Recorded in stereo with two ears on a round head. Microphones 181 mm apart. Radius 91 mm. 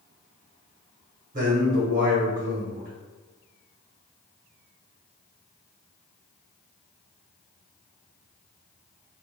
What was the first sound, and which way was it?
A man speaking, 40° right (ahead or behind).